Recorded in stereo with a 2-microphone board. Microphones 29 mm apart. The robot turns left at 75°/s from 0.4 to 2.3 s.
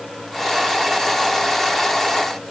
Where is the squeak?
No squeak in this recording.